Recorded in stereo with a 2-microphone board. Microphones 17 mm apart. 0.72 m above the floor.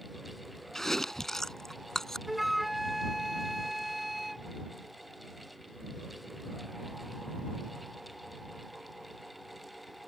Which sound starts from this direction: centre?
A flute, at 2.3 s.